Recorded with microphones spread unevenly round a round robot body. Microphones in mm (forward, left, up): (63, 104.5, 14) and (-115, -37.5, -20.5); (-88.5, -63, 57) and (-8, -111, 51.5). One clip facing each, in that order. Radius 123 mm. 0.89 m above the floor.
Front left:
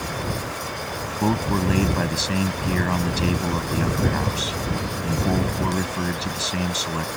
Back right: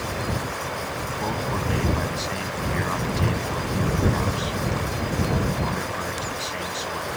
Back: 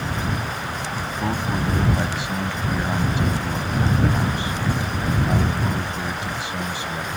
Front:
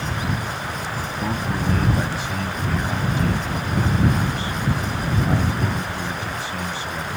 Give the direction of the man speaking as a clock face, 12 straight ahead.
10 o'clock.